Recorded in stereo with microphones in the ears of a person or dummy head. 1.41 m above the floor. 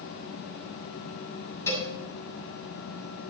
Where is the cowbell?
15° left (ahead or behind), 7 m.